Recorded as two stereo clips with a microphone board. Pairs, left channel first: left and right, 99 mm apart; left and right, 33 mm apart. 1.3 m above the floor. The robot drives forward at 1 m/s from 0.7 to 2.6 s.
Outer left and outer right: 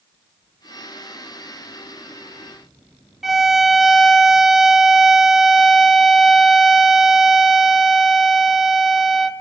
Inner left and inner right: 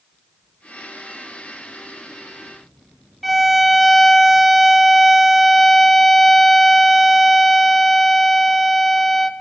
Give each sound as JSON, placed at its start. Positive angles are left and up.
{"t": 3.2, "sound": "a violin", "side_deg": -5, "distance_m": 0.5}